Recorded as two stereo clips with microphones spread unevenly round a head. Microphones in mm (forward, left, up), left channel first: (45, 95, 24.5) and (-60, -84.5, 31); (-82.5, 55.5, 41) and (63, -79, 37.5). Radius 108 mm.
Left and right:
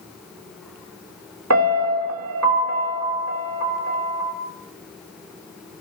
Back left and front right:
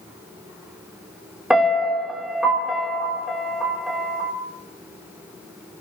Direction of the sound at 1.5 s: 130° right.